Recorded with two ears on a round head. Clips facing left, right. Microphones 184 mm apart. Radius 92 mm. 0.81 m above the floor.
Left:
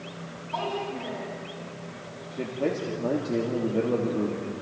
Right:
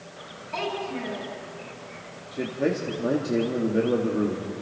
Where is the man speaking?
15° right (ahead or behind), 1.7 m.